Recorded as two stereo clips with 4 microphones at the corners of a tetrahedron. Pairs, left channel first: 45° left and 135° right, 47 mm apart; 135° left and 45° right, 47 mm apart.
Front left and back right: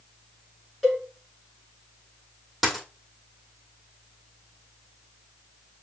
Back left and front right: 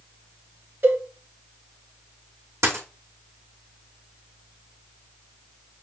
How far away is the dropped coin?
About 2.0 m.